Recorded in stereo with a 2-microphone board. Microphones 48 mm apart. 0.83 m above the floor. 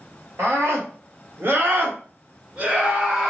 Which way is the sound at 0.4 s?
65° right (ahead or behind).